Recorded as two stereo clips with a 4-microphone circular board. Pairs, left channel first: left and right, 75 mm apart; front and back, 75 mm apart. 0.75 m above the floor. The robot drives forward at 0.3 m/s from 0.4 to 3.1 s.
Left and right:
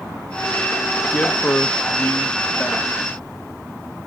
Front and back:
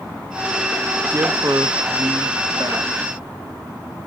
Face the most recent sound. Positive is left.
turn(degrees=165)